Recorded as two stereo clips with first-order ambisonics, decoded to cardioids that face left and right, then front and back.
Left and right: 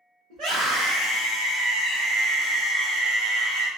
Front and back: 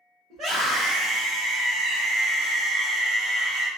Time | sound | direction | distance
0.3 | a scream | 125° right | 1.6 m